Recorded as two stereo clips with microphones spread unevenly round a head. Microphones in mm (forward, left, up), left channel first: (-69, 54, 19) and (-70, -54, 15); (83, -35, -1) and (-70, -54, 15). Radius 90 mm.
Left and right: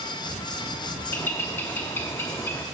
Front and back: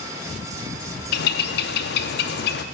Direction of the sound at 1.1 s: 15° left.